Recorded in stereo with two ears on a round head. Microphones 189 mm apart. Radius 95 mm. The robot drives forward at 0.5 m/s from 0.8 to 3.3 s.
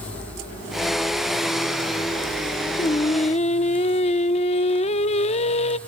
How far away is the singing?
About 0.6 m.